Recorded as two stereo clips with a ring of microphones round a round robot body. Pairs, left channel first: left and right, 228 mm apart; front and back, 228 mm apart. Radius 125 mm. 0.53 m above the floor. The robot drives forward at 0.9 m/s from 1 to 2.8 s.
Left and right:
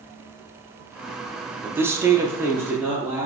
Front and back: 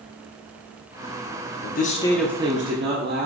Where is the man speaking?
10° right, 0.8 m; by 3.3 s 170° right, 0.8 m.